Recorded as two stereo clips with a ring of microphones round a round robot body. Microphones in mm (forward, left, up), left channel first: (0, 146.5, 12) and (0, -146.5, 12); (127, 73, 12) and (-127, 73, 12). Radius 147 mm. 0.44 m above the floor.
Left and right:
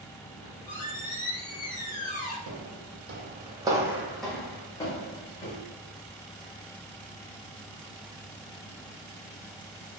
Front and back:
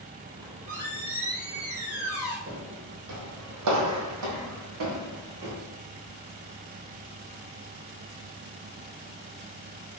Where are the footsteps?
120° right, 0.8 m; by 5.6 s 160° left, 1.6 m.